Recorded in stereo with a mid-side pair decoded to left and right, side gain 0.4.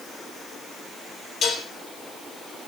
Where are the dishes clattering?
55° left, 5 m.